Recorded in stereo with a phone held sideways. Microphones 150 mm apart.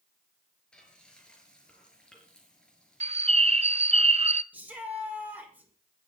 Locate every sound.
0.7 s frying: 5° left (ahead or behind), 5.5 m
3.0 s a bird: 45° right (ahead or behind), 0.6 m
4.5 s a shout: 10° right (ahead or behind), 6 m